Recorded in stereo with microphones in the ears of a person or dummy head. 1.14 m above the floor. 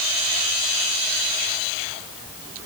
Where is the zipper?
No zipper in this recording.